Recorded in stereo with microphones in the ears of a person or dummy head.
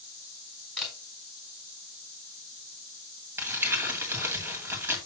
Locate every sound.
0.8 s a camera shutter: 5° right (ahead or behind), 4.5 m
3.4 s crumpling: 15° right (ahead or behind), 2 m